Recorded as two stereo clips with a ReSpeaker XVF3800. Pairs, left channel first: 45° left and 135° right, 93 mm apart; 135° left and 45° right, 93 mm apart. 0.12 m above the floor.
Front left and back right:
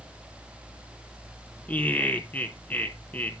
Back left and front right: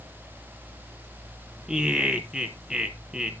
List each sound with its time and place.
1.7 s laughter: 20° left, 1.1 m